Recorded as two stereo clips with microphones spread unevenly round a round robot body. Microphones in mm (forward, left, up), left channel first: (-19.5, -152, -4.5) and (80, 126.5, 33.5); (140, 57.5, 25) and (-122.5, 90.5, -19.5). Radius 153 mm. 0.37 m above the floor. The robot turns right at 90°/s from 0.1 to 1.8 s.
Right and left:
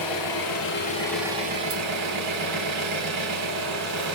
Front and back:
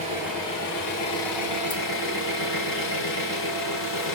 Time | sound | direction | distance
0.0 | an engine running | 120° right | 4 m